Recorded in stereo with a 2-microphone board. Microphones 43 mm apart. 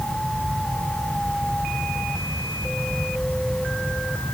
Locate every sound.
Only background noise.